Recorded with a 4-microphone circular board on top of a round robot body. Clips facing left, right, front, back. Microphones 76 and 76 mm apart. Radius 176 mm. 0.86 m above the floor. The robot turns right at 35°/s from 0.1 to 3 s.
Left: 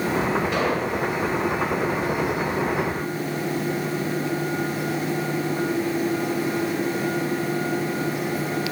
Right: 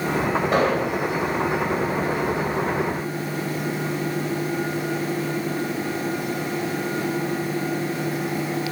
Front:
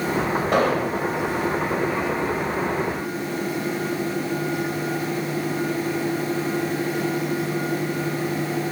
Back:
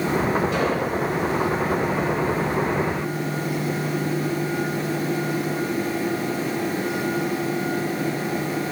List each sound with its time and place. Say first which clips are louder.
0.5 s an explosion: right 3 dB, front 2 dB; 40° right, 2.5 m; by 1.0 s 25° right, 2.5 m